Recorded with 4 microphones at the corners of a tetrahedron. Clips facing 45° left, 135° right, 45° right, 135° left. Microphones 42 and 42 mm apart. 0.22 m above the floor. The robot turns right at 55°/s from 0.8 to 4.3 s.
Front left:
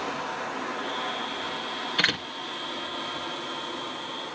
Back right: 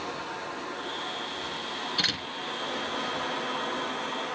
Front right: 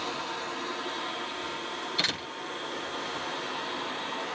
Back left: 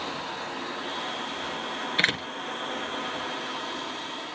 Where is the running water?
70° left, 7 m; by 4.4 s 95° right, 7 m.